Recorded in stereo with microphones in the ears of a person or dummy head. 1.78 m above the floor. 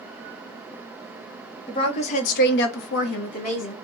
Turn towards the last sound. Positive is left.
turn(degrees=45)  # may be behind; listen again after turning